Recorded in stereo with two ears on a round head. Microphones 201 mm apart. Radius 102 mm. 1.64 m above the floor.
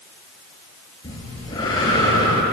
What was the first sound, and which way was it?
Breathing, 20° left (ahead or behind).